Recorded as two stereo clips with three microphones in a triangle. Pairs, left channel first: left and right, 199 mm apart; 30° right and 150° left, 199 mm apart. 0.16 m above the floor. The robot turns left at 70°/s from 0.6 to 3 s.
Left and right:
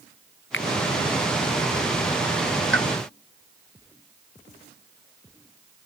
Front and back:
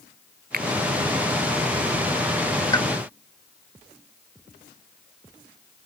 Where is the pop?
100° right; by 2.9 s 110° right.